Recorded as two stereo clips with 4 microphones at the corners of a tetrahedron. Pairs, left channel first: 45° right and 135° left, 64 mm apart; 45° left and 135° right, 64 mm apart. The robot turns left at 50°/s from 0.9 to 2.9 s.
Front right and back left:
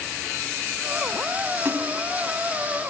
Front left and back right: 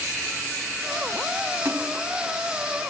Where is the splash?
175° right, 1.7 m; by 2.0 s 165° left, 1.7 m.